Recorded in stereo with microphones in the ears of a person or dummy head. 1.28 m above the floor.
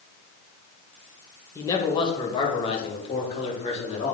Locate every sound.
1.6 s a man speaking: 20° left (ahead or behind), 1.3 m; by 4.2 s 40° left (ahead or behind), 3 m